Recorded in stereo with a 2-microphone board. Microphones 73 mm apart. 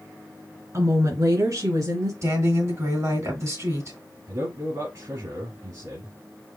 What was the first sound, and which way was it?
A woman speaking, 55° right (ahead or behind).